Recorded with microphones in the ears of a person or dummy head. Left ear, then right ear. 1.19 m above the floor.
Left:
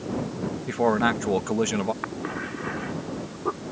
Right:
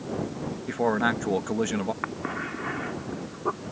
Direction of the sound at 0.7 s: 5° left (ahead or behind).